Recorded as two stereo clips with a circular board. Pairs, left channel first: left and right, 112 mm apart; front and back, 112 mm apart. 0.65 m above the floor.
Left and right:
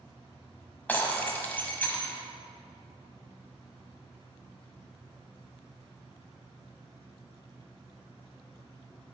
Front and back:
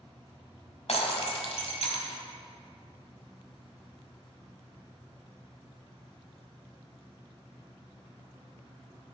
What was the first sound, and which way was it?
Breaking glass, 15° left.